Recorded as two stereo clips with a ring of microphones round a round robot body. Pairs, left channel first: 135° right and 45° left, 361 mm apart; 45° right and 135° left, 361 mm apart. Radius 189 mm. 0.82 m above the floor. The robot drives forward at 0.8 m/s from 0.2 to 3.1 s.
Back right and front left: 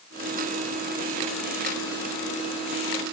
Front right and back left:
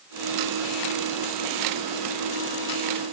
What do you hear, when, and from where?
Only background noise.